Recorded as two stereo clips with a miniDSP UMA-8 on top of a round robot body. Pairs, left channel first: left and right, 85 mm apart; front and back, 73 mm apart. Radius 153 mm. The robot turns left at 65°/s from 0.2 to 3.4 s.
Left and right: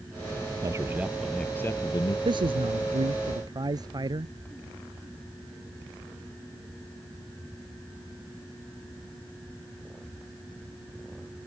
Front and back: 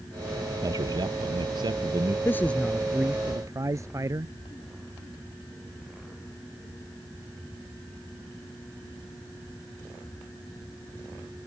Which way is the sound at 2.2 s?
55° right.